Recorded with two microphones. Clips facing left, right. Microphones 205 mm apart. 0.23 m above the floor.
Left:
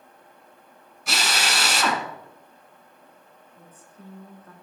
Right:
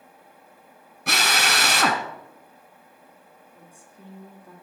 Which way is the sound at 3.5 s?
10° right (ahead or behind).